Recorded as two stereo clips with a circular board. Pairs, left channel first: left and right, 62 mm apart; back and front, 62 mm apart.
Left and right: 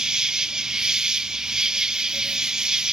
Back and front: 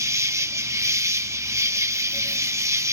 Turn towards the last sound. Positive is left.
turn(degrees=-15)